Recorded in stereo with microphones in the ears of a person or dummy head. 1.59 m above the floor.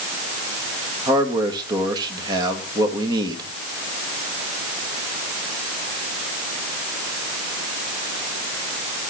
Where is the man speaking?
20° right (ahead or behind), 2 m.